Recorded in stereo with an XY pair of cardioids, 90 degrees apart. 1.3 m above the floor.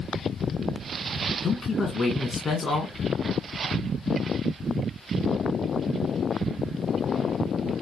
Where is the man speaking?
40° left, 1.5 m.